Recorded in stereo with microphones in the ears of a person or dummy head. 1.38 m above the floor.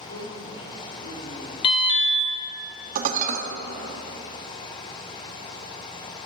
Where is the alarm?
30° left (ahead or behind), 1.4 m.